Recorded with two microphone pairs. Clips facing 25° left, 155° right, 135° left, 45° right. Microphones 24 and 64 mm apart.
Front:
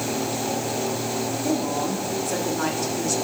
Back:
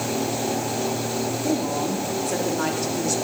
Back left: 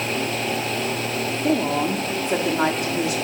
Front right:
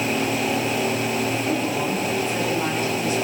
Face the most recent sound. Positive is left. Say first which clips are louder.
# even, back left 2 dB
turn(degrees=120)